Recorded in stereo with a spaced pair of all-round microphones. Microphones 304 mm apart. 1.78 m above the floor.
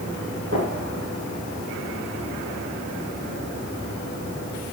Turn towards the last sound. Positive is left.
turn(degrees=-50)  # may be behind; listen again after turning